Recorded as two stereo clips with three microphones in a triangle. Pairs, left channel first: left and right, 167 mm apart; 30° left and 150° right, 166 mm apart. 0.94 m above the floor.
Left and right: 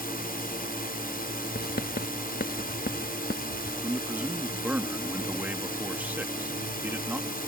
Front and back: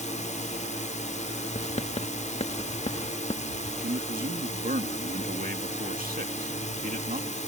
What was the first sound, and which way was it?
A drone, 70° left.